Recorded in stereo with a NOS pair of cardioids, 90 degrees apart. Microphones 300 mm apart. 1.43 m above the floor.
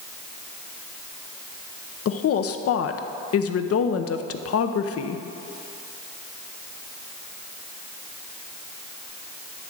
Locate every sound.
2.0 s a woman speaking: 50° left, 0.8 m